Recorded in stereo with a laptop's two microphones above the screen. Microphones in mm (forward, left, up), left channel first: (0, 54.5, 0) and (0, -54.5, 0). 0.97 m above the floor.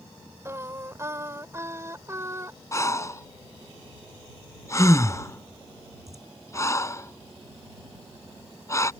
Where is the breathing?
30° left (ahead or behind).